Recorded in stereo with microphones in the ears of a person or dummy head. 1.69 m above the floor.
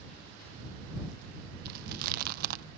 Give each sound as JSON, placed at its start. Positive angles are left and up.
{"t": 1.6, "sound": "chewing", "side_deg": -55}